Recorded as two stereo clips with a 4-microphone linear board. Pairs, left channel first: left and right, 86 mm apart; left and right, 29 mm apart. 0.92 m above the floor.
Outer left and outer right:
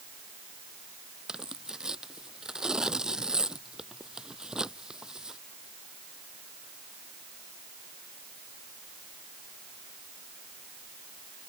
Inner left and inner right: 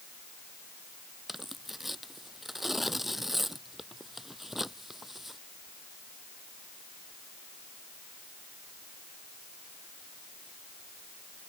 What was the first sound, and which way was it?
Tearing paper, 10° right (ahead or behind).